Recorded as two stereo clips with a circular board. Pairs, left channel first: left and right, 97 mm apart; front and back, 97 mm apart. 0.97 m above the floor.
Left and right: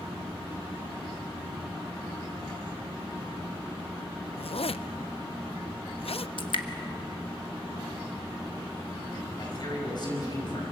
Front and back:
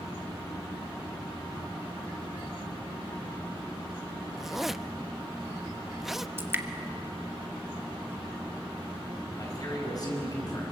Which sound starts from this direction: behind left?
Dripping, at 6.4 s.